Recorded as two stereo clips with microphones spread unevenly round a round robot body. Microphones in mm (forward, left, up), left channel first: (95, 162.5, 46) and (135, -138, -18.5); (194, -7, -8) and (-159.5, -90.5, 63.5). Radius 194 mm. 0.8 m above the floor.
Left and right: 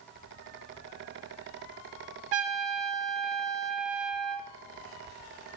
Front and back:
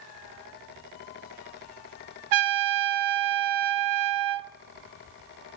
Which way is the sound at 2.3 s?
130° right.